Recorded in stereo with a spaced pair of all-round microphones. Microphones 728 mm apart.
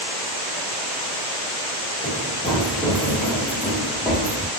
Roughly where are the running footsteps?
Centre.